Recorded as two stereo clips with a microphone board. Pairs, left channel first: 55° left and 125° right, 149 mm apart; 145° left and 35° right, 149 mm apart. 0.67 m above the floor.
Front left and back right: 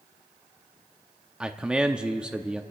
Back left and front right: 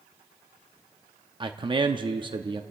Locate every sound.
1.4 s a man speaking: 45° right, 0.6 m